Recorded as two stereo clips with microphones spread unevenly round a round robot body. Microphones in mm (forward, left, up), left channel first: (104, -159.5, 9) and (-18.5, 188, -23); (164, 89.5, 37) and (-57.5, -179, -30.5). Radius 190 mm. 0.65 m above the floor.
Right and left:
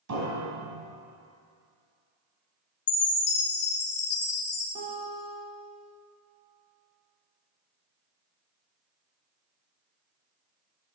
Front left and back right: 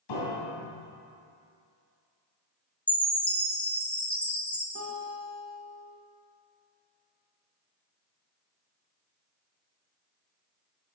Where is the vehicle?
I don't hear a vehicle.